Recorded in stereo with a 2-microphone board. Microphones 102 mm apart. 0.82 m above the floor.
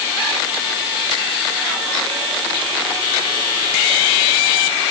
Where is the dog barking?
I don't hear a dog barking.